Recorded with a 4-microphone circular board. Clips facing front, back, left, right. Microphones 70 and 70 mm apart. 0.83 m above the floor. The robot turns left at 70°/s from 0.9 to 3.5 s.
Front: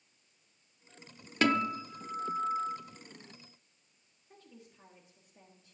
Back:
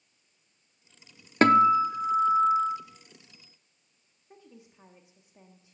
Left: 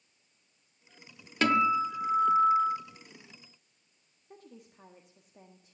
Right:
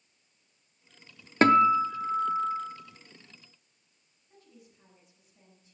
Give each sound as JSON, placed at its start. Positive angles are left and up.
{"t": 1.4, "sound": "a guitar", "azimuth_deg": -135, "distance_m": 0.7}
{"t": 4.3, "sound": "a woman speaking", "azimuth_deg": 110, "distance_m": 1.4}